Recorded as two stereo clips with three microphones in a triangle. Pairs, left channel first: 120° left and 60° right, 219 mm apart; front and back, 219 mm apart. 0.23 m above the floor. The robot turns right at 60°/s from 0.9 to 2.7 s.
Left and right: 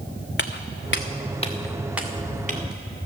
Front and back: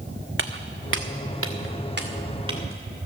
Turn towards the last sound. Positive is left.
turn(degrees=-100)